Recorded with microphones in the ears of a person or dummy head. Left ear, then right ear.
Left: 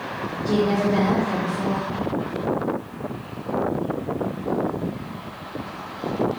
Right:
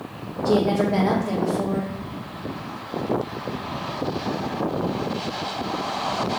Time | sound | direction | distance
0.5 | a woman speaking | 30° right (ahead or behind) | 0.7 m